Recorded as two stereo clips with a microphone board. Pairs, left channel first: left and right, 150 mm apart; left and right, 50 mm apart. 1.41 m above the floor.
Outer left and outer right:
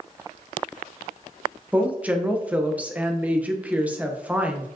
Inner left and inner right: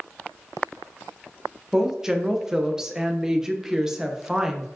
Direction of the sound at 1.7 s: 10° right (ahead or behind).